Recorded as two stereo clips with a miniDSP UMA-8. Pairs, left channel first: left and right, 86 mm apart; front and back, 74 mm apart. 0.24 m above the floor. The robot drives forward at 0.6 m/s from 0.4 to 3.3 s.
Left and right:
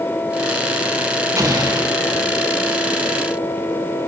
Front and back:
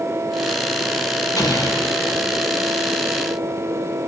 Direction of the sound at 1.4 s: 35° right.